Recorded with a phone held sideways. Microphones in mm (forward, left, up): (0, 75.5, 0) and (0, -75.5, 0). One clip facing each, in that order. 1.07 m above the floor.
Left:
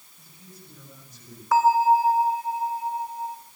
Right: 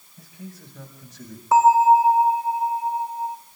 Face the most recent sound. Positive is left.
turn(degrees=-25)  # may be behind; listen again after turning